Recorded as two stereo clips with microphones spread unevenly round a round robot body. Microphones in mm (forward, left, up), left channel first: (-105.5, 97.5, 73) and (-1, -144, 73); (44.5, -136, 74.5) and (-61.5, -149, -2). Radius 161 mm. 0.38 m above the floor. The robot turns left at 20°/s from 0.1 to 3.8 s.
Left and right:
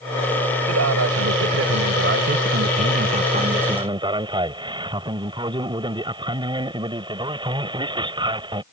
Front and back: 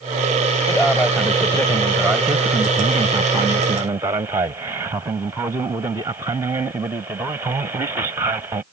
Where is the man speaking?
75° right; by 8.6 s 135° right.